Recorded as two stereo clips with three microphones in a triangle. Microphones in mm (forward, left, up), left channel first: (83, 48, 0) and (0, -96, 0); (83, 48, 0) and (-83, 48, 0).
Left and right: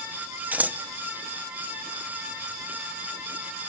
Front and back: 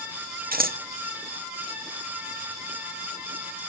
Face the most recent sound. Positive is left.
turn(degrees=160)